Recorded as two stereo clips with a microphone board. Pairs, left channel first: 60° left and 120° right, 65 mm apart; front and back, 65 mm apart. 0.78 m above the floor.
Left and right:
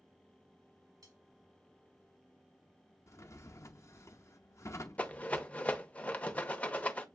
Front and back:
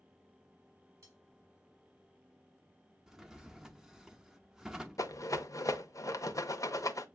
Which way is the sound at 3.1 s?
100° left.